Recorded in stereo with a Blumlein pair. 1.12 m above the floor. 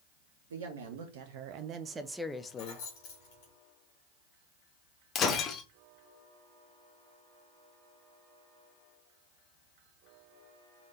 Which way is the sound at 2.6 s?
50° left.